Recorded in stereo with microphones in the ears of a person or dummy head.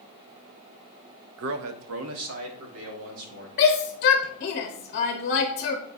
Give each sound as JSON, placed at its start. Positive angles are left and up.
{"t": 1.4, "sound": "a man speaking", "side_deg": -50, "distance_m": 0.6}
{"t": 3.6, "sound": "a shout", "side_deg": 45, "distance_m": 0.8}